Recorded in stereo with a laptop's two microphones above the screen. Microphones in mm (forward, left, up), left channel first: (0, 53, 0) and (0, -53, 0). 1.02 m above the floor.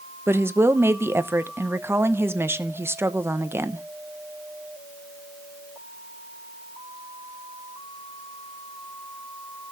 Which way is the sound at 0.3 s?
25° right (ahead or behind).